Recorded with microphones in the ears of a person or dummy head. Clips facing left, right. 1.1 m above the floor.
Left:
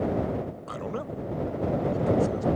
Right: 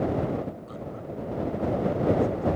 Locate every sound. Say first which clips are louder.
0.7 s a man speaking: left 3 dB; 70° left (ahead or behind); by 2.5 s 85° left